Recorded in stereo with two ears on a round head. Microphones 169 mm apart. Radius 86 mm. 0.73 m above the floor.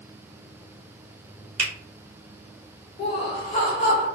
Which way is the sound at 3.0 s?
35° left (ahead or behind).